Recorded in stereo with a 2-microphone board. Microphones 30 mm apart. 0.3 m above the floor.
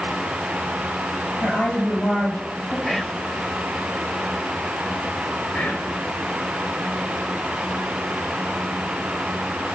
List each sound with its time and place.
1.4 s a woman speaking: 80° left, 6.5 m
2.9 s whispering: 15° left (ahead or behind), 0.9 m
5.5 s whispering: 70° left (ahead or behind), 4 m